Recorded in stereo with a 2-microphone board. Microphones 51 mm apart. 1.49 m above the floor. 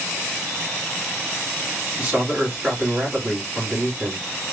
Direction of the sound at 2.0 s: 20° right (ahead or behind).